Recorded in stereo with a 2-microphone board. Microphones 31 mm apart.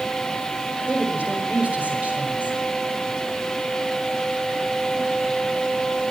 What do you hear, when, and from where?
0.9 s a woman speaking: 45° right (ahead or behind), 5.5 m